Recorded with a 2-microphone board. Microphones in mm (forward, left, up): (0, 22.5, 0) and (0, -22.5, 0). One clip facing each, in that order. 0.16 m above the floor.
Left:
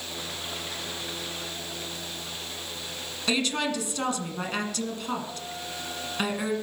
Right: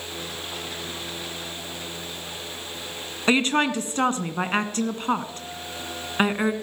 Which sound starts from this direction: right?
A woman speaking, at 3.3 s.